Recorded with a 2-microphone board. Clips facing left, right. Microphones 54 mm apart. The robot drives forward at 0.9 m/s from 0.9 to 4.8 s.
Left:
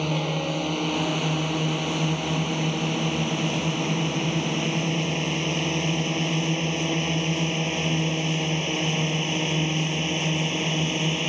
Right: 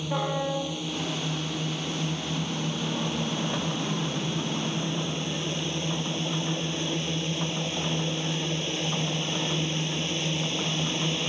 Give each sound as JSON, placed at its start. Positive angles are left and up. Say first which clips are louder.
{"t": 0.0, "sound": "a drone", "louder": "left 2 dB", "side_deg": 60}